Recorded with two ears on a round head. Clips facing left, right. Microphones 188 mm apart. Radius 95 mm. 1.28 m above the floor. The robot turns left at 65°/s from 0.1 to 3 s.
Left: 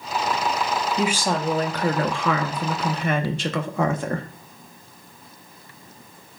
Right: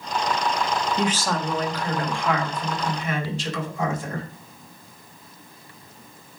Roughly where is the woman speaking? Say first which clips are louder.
Left 1 dB; behind.